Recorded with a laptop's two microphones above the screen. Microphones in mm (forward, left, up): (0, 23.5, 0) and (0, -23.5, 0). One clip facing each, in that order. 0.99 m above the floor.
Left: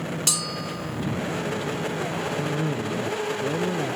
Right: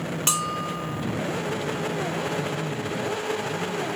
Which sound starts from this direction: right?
A bell, at 0.3 s.